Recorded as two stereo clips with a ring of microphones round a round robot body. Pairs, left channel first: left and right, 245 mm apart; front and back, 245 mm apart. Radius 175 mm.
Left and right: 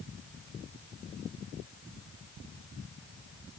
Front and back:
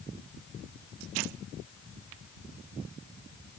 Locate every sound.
Only background noise.